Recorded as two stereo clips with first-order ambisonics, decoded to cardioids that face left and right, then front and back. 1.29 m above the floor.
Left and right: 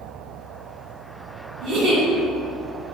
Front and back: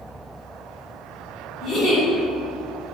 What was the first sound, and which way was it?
A giggle, 55° right.